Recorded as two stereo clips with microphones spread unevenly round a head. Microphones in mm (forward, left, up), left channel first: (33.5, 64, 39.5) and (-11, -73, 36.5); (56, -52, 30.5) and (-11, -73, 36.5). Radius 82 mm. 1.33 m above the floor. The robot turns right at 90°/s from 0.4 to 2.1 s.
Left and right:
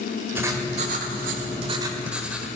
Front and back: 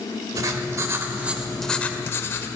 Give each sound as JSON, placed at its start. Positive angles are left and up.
{"t": 0.3, "sound": "writing", "azimuth_deg": 180, "distance_m": 1.4}